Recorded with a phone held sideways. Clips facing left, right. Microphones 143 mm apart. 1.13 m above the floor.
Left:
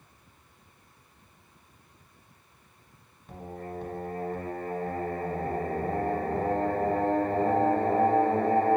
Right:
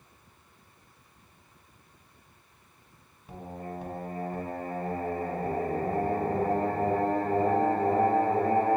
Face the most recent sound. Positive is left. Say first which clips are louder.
# even
turn(degrees=-10)  # may be behind; listen again after turning